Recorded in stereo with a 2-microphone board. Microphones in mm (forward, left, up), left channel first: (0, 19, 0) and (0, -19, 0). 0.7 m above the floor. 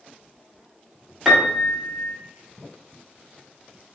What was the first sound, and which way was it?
A piano, 5° right (ahead or behind).